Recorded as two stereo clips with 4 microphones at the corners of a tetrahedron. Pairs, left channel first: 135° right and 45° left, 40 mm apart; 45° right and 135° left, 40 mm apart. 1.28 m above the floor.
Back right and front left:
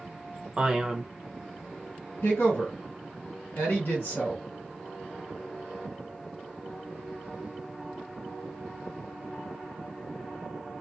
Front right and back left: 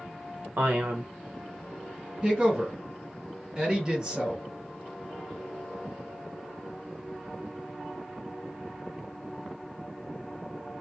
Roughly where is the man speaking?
Behind left.